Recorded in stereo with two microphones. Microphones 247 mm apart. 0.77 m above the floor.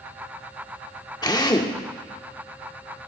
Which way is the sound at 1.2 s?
15° left (ahead or behind).